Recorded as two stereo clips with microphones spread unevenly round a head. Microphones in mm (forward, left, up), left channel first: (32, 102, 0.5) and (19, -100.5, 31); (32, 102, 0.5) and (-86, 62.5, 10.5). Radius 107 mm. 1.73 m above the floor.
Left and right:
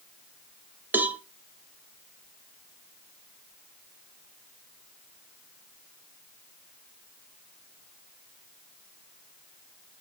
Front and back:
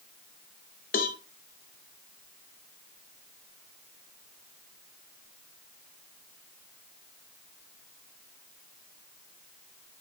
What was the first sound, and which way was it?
A cowbell, 10° right.